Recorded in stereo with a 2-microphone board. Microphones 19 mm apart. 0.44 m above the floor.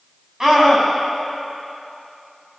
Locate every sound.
0.4 s a scream: 25° right (ahead or behind), 3 m